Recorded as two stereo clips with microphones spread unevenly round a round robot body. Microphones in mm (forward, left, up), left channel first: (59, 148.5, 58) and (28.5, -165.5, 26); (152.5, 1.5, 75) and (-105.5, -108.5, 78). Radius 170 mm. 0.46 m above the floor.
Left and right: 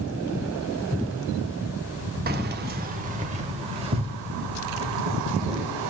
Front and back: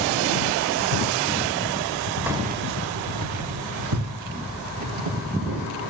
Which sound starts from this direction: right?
Keys jangling, at 2.3 s.